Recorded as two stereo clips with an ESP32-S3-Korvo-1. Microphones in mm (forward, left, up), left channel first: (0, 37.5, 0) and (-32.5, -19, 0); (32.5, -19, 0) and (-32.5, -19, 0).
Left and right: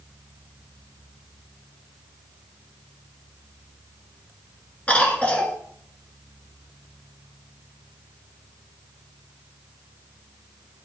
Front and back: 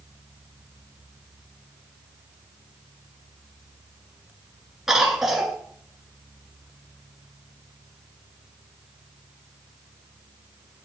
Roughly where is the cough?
Left.